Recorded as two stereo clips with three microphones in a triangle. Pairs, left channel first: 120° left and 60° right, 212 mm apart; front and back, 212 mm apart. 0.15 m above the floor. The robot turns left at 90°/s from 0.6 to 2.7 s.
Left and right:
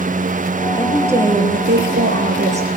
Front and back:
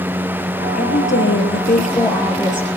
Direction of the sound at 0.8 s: 50° left.